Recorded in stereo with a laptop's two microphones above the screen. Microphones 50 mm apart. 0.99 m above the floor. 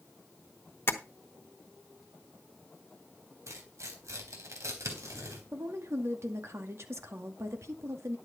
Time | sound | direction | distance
0.9 | tapping | 45° left (ahead or behind) | 1.1 m
3.5 | tearing paper | 70° right (ahead or behind) | 3.5 m
5.5 | a woman speaking | 60° right (ahead or behind) | 2 m